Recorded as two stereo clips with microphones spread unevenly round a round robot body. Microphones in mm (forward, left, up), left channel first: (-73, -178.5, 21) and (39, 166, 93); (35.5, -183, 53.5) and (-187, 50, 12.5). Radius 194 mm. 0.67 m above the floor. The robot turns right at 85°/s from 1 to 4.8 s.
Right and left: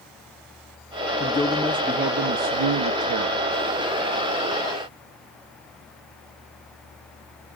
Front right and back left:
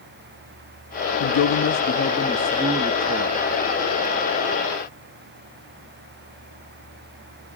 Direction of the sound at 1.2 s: 60° right.